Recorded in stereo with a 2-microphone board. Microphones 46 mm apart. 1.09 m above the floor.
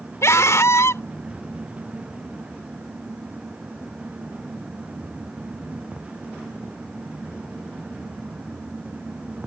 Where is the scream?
90° left.